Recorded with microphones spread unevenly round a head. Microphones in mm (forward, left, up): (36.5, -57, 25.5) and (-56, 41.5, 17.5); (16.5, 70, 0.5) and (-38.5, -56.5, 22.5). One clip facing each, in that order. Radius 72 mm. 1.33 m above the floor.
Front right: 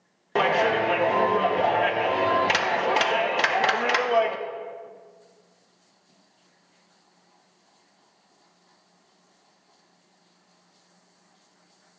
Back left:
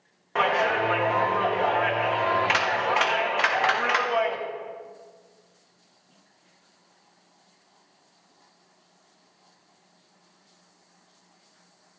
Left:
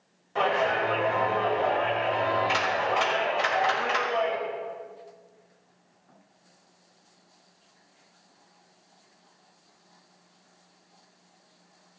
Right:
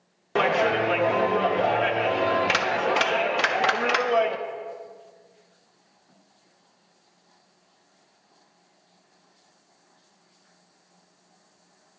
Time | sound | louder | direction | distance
0.3 | a clap | front right 2 dB, right 3 dB | 100° right | 1.2 m